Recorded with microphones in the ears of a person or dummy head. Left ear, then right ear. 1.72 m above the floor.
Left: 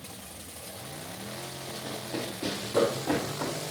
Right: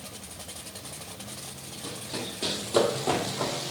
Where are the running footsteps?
30° right (ahead or behind), 3.5 m; by 3.5 s 60° right (ahead or behind), 3.5 m.